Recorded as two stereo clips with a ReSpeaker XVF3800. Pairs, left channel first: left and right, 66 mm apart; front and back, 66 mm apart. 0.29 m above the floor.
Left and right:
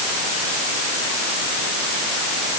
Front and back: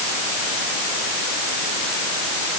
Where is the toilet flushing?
I don't hear a toilet flushing.